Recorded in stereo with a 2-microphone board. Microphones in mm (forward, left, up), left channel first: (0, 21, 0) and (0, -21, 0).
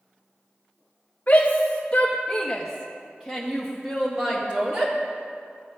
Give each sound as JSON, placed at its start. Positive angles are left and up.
{"t": 1.3, "sound": "a shout", "side_deg": 45, "distance_m": 1.1}